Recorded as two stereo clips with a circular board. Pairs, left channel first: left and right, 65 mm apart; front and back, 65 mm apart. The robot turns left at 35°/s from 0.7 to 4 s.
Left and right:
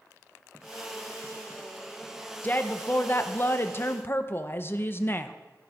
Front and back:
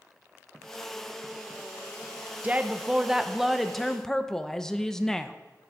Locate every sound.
2.4 s a woman speaking: 130° left, 0.5 m; by 5.3 s 75° left, 0.5 m